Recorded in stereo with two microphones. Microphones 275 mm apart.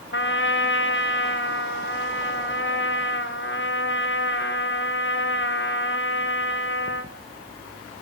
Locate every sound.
0.1 s a trumpet: 45° left (ahead or behind), 3 m